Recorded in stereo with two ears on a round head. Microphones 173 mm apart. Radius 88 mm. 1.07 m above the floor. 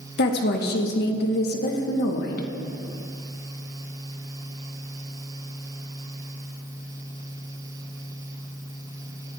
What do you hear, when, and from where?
0.2 s a woman speaking: 55° left (ahead or behind), 1.2 m